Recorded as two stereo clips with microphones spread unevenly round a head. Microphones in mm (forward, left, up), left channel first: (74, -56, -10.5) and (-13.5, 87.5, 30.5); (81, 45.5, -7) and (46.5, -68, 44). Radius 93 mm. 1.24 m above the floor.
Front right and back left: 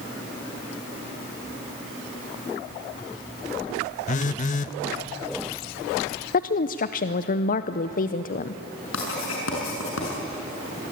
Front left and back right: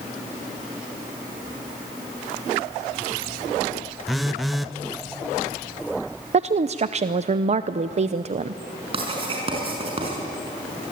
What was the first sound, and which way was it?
A phone buzzing, 80° right.